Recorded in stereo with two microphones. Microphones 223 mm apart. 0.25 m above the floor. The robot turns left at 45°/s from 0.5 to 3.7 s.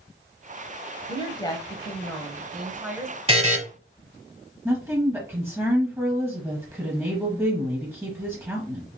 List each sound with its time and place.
1.1 s a woman speaking: 25° left (ahead or behind), 1.0 m; by 3.2 s 15° right (ahead or behind), 1.0 m
3.3 s a buzzer: 25° right (ahead or behind), 1.0 m; by 3.6 s 35° right (ahead or behind), 1.0 m
4.7 s a woman speaking: 10° right (ahead or behind), 1.1 m